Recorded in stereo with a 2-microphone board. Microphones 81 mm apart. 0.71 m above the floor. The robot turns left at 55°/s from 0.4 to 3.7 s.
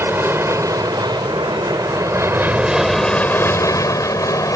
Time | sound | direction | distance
0.0 | an aircraft | 30° right (ahead or behind) | ?